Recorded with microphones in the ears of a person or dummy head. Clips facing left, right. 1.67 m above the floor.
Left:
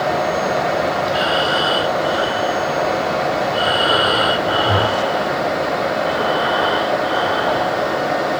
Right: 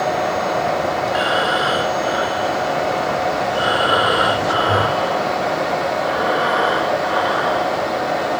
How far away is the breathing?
About 4.5 m.